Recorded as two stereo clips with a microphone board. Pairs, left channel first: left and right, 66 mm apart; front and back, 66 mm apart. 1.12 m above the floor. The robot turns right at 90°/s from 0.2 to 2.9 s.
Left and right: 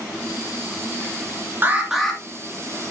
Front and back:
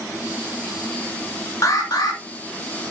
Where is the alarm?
35° right, 2 m; by 2.2 s 20° left, 2 m.